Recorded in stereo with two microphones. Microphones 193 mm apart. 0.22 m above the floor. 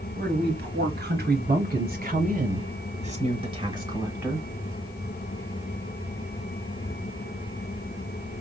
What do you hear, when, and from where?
0.1 s a woman speaking: 60° right (ahead or behind), 2.5 m; by 4.5 s 5° right (ahead or behind), 1.2 m